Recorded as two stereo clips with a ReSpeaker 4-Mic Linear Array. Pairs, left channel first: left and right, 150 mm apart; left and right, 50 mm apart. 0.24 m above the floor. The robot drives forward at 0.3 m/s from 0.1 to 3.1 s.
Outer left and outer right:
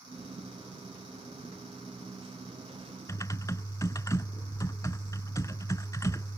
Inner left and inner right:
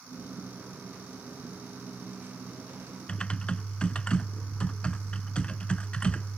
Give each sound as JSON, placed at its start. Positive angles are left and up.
{"t": 3.1, "sound": "typing on a keyboard", "side_deg": 25}